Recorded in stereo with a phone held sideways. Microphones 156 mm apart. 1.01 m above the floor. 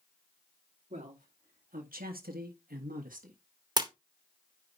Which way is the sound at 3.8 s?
25° right (ahead or behind).